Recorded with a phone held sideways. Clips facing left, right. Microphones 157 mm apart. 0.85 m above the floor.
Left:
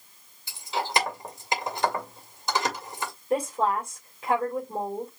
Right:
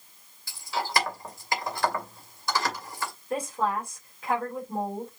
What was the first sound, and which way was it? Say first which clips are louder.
Keys jangling: left 1 dB; 20° left (ahead or behind).